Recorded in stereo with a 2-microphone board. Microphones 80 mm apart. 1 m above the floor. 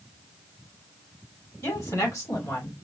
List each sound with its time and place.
1.6 s a woman speaking: 35° left (ahead or behind), 3.5 m; by 2.9 s 45° left (ahead or behind), 2.5 m